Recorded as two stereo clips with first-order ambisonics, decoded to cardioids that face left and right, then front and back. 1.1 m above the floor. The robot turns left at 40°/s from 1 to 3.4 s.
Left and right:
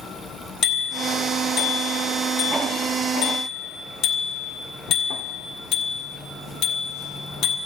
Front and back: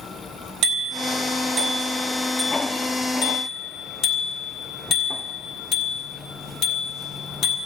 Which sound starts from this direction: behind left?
A bicycle bell, at 0.6 s.